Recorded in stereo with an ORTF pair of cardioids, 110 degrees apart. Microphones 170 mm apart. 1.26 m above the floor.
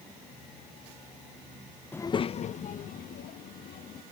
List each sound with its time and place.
1.9 s a child speaking: 10° left; by 4.0 s 65° left